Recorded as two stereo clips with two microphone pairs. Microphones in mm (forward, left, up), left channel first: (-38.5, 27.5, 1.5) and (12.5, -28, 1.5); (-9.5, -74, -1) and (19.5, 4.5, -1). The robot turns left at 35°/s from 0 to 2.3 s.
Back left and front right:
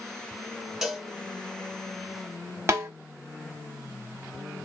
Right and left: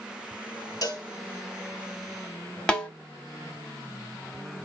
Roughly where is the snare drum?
Ahead right.